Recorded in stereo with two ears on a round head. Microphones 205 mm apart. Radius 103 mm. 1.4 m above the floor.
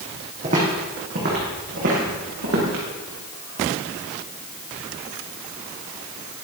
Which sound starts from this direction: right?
Footsteps, at 0.4 s.